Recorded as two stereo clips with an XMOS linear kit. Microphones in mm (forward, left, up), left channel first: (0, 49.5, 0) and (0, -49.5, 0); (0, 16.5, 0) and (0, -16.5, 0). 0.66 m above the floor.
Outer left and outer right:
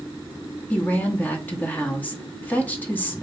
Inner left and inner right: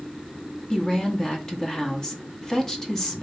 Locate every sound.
0.7 s a woman speaking: 15° left (ahead or behind), 0.9 m